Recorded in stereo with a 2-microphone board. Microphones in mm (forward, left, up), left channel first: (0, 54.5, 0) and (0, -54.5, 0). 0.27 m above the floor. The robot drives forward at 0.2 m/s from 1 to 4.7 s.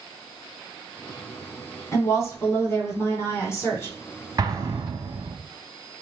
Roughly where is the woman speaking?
Left.